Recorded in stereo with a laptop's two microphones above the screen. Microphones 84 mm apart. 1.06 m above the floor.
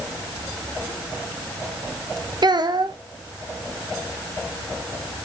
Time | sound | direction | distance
2.4 | a child speaking | 60° right (ahead or behind) | 0.6 m